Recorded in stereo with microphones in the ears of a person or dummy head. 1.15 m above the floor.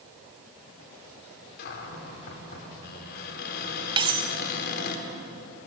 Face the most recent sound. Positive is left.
turn(degrees=-20)  # may be behind; listen again after turning